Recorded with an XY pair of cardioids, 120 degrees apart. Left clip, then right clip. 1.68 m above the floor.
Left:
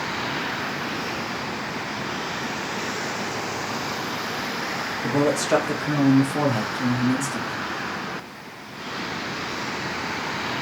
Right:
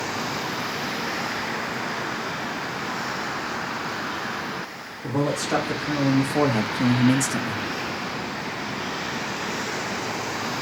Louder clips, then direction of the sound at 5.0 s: Left 3 dB; 30° left.